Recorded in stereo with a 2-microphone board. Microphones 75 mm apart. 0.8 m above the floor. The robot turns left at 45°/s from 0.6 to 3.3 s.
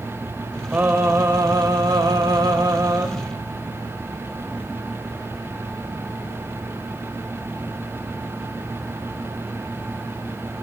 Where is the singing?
25° right, 1.0 m; by 3.1 s 135° right, 1.0 m.